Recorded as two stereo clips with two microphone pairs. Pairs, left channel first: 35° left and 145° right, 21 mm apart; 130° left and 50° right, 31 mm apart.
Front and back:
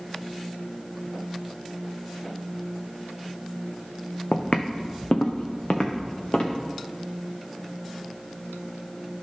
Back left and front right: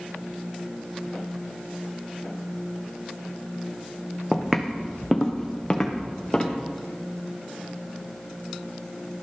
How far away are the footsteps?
About 1.0 m.